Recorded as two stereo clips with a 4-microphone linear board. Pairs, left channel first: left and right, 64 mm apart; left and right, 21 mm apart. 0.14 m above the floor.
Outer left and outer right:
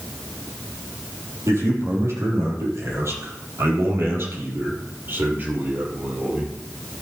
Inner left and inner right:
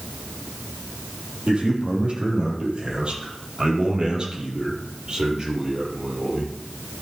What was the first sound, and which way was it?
A man speaking, 50° right (ahead or behind).